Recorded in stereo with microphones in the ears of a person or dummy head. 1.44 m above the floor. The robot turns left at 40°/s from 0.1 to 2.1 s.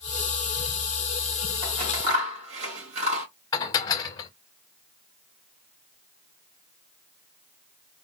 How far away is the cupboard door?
I don't hear a cupboard door.